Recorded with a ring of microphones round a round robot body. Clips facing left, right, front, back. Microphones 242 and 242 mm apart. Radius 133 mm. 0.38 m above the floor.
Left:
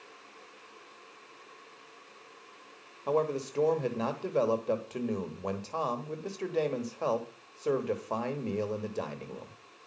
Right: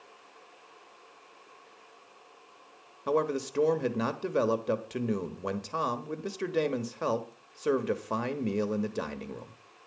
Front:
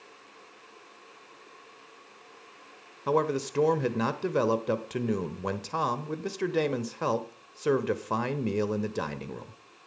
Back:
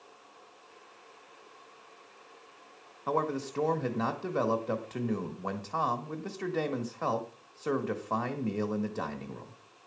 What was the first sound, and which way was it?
A man speaking, 25° right.